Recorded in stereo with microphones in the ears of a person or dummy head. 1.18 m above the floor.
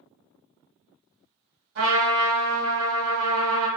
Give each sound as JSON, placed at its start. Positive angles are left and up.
{"t": 1.8, "sound": "a trumpet", "side_deg": -55, "distance_m": 1.6}